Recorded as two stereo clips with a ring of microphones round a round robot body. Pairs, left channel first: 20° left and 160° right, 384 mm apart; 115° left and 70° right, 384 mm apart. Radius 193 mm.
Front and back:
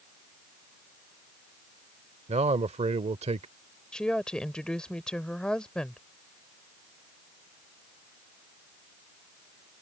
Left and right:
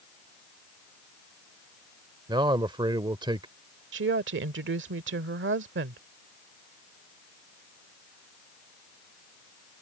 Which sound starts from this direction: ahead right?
A woman speaking, at 3.9 s.